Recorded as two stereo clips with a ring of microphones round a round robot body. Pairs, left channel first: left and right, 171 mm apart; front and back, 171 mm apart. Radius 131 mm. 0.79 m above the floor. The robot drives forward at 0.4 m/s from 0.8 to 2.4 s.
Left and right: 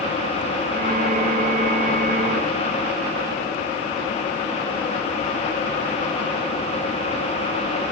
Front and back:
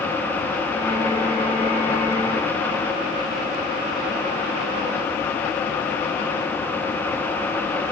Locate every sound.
Only background noise.